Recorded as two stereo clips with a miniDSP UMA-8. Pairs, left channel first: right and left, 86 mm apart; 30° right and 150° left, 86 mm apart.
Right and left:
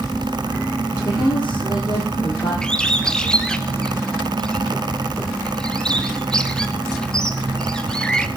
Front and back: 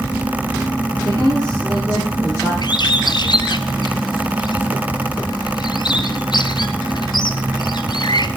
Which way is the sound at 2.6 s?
10° right.